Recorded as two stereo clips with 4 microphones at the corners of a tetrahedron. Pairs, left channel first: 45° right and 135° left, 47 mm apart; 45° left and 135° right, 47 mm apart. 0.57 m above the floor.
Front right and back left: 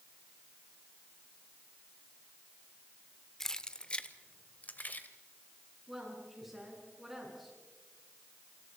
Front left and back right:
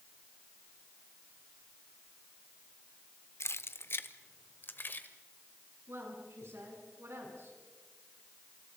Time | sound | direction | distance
3.4 | keys jangling | 35° left | 0.7 m
5.9 | a woman speaking | 145° right | 7.5 m